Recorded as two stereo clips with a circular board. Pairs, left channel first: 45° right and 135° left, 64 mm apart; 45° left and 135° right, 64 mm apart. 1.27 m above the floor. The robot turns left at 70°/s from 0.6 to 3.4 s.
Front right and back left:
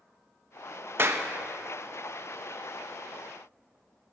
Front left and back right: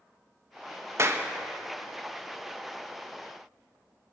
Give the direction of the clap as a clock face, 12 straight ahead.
6 o'clock.